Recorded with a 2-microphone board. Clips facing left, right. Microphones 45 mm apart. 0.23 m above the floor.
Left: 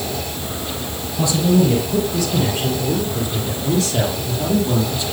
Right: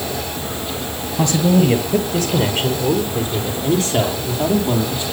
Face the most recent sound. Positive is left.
turn(degrees=-30)  # may be behind; listen again after turning